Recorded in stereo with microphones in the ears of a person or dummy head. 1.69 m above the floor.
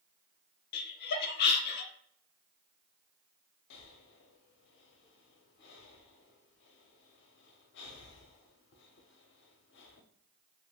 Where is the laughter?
60° left (ahead or behind), 0.6 m.